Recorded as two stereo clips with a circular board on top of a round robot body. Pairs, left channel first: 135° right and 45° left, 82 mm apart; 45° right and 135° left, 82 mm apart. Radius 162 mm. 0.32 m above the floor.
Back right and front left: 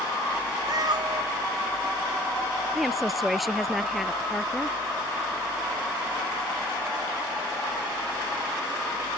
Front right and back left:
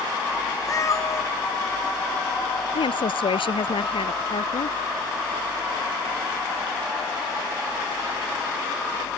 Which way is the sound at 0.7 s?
5° left.